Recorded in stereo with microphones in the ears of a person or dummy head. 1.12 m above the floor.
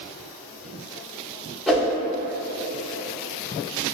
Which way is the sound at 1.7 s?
Centre (ahead or behind).